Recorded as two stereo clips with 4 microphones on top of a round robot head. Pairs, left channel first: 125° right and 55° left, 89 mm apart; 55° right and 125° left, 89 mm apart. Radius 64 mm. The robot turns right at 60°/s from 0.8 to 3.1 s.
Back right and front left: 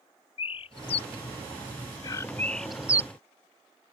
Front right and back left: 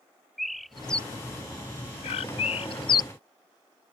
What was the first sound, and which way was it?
A bird, 145° right.